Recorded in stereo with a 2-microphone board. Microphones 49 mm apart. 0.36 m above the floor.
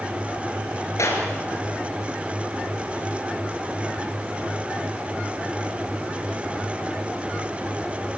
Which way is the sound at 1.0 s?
80° left.